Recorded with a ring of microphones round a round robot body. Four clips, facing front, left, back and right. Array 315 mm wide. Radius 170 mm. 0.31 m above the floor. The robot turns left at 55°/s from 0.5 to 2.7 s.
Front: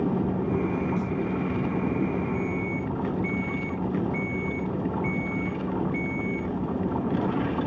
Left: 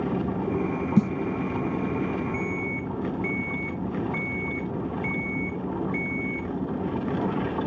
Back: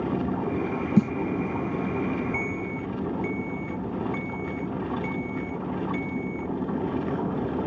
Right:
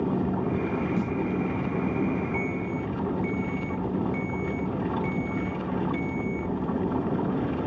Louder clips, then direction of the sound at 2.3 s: Right 1 dB, front 2 dB; 170° left.